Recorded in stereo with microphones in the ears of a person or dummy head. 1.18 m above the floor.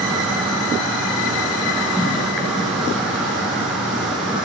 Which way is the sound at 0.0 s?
5° right (ahead or behind).